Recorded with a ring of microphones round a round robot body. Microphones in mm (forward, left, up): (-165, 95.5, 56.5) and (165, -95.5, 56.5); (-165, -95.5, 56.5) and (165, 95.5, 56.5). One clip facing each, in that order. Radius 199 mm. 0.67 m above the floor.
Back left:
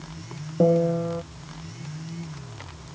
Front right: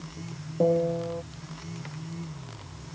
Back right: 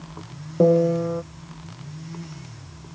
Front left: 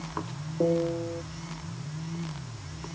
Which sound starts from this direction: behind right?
A piano, at 0.6 s.